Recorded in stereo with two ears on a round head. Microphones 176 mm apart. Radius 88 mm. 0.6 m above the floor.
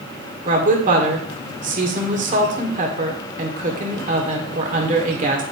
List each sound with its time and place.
0.5 s a woman speaking: 40° right (ahead or behind), 1.8 m